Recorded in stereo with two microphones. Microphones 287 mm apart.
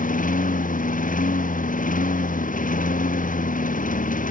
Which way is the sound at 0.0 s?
30° left (ahead or behind).